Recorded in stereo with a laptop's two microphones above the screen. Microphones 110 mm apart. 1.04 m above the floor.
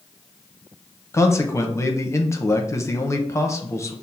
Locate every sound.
1.1 s a man speaking: 25° left (ahead or behind), 0.8 m